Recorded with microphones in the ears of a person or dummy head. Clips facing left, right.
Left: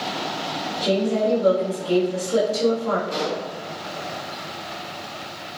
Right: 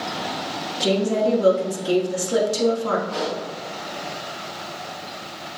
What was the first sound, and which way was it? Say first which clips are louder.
A woman speaking: right 1 dB; 70° right (ahead or behind).